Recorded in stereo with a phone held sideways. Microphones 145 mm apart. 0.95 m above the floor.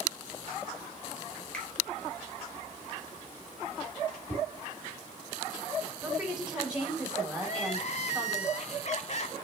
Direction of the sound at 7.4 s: 50° left (ahead or behind).